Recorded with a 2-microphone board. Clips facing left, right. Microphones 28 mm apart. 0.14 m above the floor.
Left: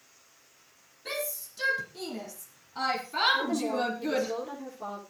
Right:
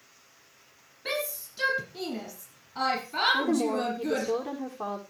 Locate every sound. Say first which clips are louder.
1.1 s a shout: right 3 dB; 30° right (ahead or behind), 4.5 m; by 4.3 s 10° left (ahead or behind), 5 m
3.3 s a woman speaking: right 2 dB; 75° right (ahead or behind), 8 m